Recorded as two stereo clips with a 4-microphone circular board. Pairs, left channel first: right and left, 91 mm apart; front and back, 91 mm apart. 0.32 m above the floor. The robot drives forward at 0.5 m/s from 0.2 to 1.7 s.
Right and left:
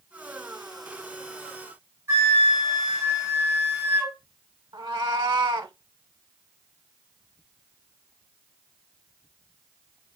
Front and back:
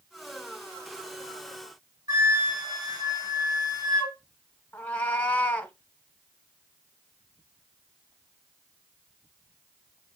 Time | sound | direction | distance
2.1 | a flute | 145° left | 2.5 m
4.7 | a cat meowing | 75° left | 0.6 m